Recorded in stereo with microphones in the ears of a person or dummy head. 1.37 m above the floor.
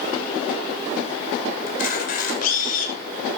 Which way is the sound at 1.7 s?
50° left (ahead or behind).